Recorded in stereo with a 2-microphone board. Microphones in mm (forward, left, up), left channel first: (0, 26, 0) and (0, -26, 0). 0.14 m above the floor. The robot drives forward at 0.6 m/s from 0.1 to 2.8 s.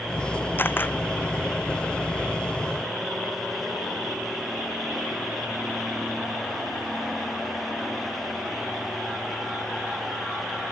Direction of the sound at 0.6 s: 40° left (ahead or behind).